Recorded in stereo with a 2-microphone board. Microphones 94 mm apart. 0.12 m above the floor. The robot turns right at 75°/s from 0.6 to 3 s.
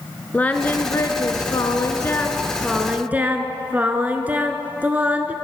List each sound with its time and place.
0.3 s singing: 30° left, 0.5 m; by 5.3 s 150° right, 0.5 m